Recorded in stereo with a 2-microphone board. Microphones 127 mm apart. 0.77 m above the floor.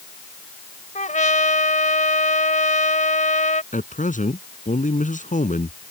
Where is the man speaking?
85° left.